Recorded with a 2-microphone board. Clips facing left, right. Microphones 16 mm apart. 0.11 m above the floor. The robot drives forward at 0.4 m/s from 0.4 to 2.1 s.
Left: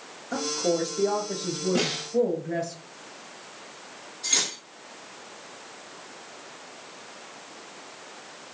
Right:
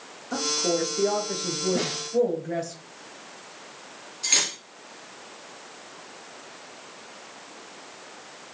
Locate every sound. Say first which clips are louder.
0.3 s a woman speaking: right 1 dB; 25° right (ahead or behind), 1.5 m; by 2.8 s 30° right (ahead or behind), 1.2 m
1.8 s a snare drum: left 1 dB; 30° left (ahead or behind), 1.5 m; by 2.1 s 25° left (ahead or behind), 1.5 m
4.2 s cutlery clinking: right 2 dB; 45° right (ahead or behind), 1.4 m